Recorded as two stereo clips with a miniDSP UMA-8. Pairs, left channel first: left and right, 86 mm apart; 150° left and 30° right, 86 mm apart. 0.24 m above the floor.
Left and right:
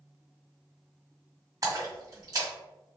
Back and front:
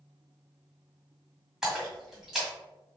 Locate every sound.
1.6 s a splash: 115° right, 1.8 m